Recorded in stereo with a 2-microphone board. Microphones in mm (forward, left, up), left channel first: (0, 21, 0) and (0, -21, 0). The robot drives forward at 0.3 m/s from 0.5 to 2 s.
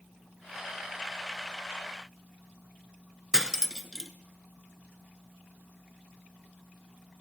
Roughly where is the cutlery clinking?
Centre.